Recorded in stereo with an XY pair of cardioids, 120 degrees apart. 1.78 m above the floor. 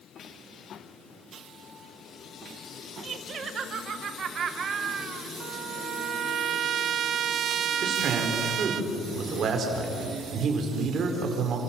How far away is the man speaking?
About 5 m.